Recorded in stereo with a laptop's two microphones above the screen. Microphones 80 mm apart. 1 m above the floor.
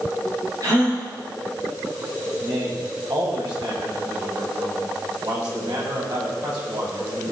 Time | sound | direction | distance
0.6 | a gasp | 50° right (ahead or behind) | 4 m
2.4 | a man speaking | 70° right (ahead or behind) | 6 m